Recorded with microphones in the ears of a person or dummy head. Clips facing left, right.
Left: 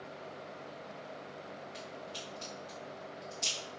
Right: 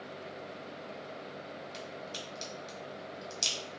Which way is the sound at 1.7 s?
55° right (ahead or behind).